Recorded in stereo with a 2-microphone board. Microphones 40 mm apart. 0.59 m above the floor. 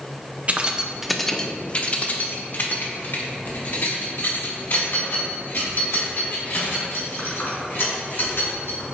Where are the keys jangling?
35° right (ahead or behind), 0.6 m; by 8.9 s 75° left (ahead or behind), 4.5 m.